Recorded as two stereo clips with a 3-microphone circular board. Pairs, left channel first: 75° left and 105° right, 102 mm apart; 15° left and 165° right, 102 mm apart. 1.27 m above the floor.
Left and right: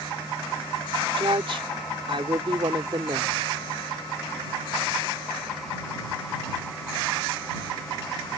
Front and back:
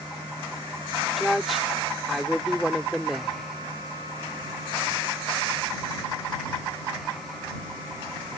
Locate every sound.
1.2 s a woman speaking: 75° right